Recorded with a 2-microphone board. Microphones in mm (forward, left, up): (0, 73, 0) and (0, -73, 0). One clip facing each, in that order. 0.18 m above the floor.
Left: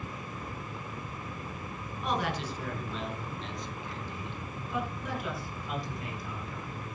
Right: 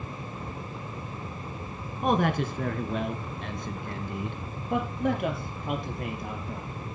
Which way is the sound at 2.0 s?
55° right (ahead or behind).